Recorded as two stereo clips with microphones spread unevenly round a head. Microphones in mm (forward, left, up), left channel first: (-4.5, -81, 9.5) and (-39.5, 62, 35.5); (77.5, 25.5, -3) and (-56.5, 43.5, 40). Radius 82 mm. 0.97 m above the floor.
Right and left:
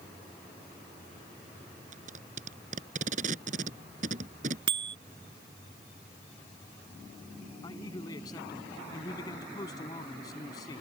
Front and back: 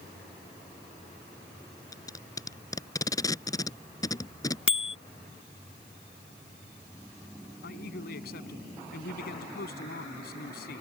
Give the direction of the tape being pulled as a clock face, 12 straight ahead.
10 o'clock.